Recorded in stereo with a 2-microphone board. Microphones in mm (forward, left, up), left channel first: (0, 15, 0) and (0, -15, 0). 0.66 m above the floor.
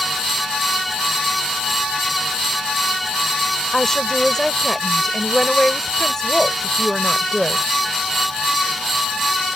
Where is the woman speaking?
25° left (ahead or behind).